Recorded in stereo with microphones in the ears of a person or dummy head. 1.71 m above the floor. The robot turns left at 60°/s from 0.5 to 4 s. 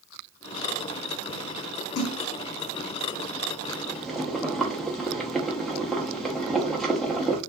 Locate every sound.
1.9 s a splash: 60° left (ahead or behind), 0.5 m; by 2.2 s 75° left (ahead or behind), 0.5 m
3.7 s boiling: 25° left (ahead or behind), 0.5 m; by 7.4 s 10° left (ahead or behind), 0.5 m